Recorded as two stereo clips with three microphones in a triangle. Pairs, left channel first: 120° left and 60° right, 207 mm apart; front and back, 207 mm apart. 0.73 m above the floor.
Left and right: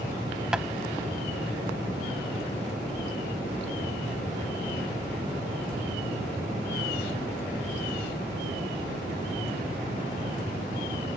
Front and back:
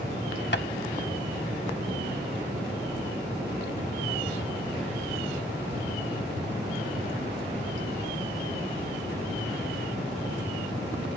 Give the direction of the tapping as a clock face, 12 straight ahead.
11 o'clock.